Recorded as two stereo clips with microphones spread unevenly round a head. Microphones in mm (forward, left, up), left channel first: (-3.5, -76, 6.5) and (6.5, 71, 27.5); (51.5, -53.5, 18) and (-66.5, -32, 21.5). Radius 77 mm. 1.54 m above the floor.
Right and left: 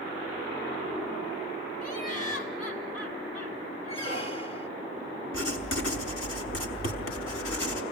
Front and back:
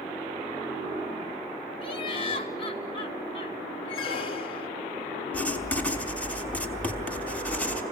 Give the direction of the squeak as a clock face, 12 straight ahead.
1 o'clock.